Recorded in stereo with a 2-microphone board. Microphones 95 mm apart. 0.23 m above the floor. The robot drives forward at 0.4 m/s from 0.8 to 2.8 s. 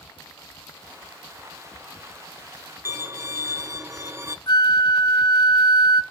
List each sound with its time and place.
2.9 s a violin: 30° right (ahead or behind), 0.9 m
4.5 s a flute: 50° left (ahead or behind), 0.7 m